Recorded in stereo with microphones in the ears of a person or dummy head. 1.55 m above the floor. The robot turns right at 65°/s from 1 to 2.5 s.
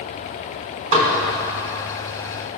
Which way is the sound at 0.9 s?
35° right (ahead or behind).